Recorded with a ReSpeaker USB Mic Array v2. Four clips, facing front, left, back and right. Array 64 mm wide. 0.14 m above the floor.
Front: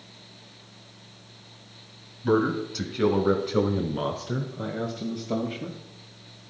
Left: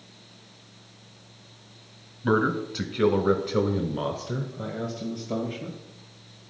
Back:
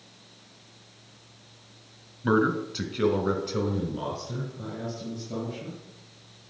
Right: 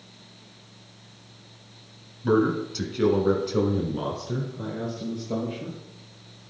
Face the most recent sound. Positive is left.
turn(degrees=5)